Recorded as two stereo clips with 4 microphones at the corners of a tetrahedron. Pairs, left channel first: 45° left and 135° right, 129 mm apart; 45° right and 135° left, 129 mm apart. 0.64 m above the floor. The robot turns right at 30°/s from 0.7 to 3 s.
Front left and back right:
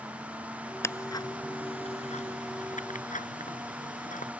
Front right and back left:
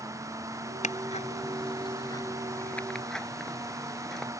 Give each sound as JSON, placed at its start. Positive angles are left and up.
{"t": 0.8, "sound": "ticking", "azimuth_deg": -25}